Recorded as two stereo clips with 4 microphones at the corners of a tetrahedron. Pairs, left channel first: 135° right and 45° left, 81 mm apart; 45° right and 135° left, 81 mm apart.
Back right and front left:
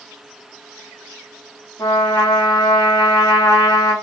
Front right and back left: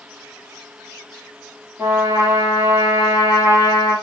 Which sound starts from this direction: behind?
A trumpet, at 1.8 s.